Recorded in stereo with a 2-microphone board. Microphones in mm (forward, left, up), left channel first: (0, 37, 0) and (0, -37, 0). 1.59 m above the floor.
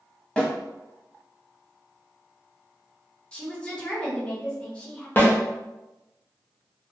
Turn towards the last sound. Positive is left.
turn(degrees=30)  # may be behind; listen again after turning